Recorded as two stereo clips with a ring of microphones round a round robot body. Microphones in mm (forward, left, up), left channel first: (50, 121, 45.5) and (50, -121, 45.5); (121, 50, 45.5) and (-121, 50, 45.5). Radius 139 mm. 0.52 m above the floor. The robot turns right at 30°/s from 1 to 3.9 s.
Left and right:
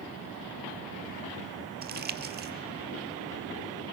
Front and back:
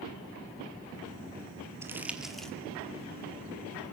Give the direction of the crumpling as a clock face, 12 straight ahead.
4 o'clock.